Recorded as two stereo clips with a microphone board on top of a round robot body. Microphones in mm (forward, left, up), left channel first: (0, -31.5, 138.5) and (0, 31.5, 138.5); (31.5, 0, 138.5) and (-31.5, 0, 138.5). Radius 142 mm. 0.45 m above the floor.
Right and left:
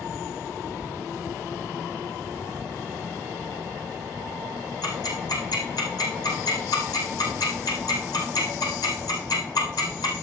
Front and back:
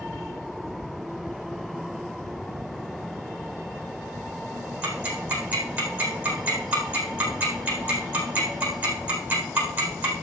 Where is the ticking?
115° right, 4 m.